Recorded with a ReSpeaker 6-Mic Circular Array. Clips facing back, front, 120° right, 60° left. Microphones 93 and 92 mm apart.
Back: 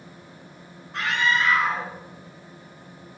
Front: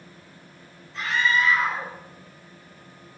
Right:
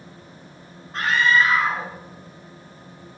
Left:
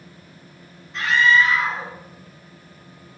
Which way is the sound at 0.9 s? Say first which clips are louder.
Even, left 2 dB; 160° right.